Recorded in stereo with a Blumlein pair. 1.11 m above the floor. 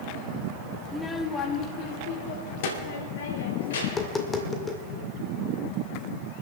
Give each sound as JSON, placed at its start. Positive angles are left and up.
{"t": 0.8, "sound": "a child speaking", "azimuth_deg": -5, "distance_m": 0.7}
{"t": 3.8, "sound": "tapping", "azimuth_deg": 15, "distance_m": 1.7}